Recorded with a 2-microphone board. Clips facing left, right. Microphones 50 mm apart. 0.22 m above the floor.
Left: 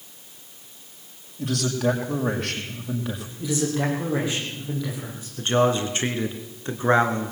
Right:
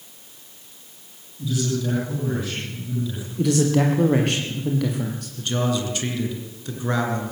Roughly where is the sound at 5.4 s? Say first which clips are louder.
Left 4 dB; left.